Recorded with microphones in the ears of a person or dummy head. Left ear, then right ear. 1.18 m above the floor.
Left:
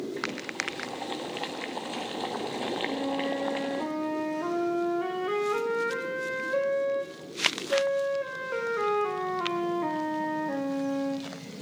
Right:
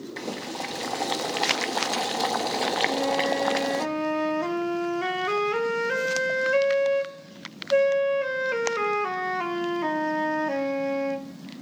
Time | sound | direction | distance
0.2 | boiling | 75° right (ahead or behind) | 1.0 m
2.9 | a flute | 80° right | 2 m